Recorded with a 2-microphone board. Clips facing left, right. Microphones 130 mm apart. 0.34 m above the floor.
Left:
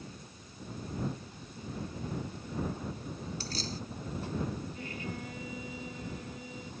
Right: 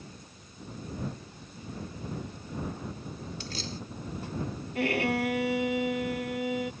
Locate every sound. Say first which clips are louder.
3.4 s keys jangling: even; 40° left (ahead or behind)
4.8 s a violin: right 13 dB; 80° right